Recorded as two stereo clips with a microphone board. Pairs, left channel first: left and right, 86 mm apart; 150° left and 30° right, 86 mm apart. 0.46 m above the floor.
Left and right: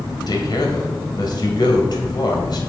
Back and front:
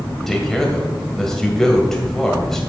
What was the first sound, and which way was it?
A man speaking, 65° left.